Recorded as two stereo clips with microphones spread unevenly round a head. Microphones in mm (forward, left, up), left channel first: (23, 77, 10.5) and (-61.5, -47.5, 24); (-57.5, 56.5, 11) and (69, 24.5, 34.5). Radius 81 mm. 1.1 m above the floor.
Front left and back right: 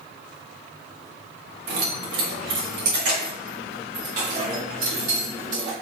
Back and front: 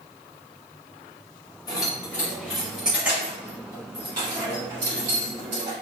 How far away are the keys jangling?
About 1.6 m.